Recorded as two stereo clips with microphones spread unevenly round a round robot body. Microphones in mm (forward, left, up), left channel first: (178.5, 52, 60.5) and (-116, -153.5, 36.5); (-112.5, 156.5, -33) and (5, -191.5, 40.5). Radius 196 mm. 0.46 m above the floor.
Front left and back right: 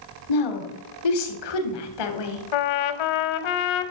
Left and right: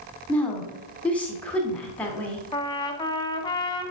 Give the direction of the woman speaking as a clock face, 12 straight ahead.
11 o'clock.